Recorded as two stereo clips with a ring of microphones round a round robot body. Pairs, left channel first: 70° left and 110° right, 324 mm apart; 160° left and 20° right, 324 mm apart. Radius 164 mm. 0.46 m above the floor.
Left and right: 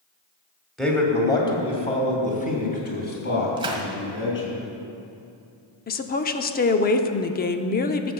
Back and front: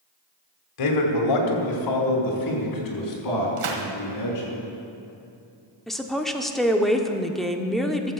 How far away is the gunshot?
About 1.7 m.